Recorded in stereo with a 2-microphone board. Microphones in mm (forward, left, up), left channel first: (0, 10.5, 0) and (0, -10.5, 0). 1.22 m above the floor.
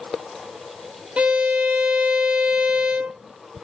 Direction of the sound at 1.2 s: 65° right (ahead or behind).